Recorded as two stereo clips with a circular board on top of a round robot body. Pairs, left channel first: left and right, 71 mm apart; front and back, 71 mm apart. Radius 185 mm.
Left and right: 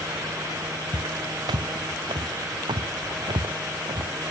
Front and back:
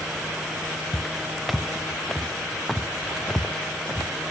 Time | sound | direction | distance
0.9 | footsteps | 90° right | ?